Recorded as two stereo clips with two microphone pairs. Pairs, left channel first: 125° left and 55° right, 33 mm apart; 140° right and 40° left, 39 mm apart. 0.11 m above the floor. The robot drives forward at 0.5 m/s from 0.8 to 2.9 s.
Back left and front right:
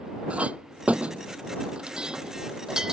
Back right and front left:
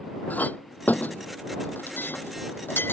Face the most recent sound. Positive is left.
turn(degrees=-125)